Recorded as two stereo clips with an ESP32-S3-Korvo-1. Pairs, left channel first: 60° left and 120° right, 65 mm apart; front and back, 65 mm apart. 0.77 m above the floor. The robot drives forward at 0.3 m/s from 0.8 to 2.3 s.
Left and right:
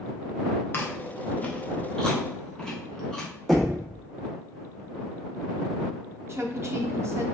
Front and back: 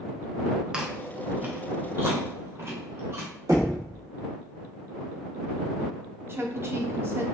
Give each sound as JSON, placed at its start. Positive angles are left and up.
{"t": 0.7, "sound": "chewing", "azimuth_deg": 105, "distance_m": 0.6}
{"t": 3.5, "sound": "knocking", "azimuth_deg": 150, "distance_m": 1.0}
{"t": 6.3, "sound": "a woman speaking", "azimuth_deg": -145, "distance_m": 0.6}